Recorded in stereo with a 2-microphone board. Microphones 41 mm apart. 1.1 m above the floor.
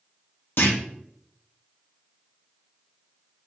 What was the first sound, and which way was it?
A clunk, 65° left (ahead or behind).